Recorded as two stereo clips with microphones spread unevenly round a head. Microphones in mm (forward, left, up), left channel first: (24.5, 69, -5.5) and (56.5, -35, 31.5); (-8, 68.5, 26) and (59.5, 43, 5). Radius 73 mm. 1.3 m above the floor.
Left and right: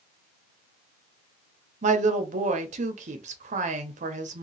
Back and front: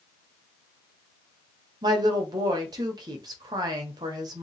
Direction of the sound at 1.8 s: 55° right.